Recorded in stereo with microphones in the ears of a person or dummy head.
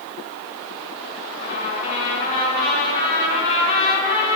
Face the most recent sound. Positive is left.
turn(degrees=30)  # may be behind; listen again after turning